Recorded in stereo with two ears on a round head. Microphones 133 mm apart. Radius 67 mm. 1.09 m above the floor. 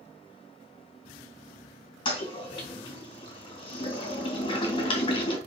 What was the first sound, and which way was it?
A toilet flushing, 35° left (ahead or behind).